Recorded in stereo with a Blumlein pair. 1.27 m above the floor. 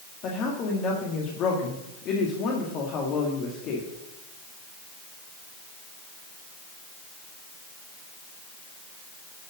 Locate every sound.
0.2 s a woman speaking: 35° left, 2 m